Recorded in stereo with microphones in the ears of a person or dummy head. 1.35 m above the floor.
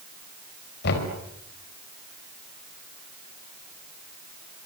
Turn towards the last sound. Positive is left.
turn(degrees=55)  # may be behind; listen again after turning